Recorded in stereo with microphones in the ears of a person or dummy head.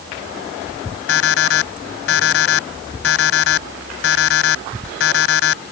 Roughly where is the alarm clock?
Left.